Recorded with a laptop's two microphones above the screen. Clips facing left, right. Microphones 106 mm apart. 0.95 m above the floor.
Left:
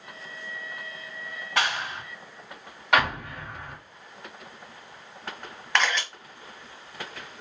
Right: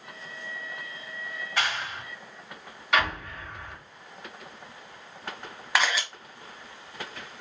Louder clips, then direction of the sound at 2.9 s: Left 3 dB; 60° left (ahead or behind).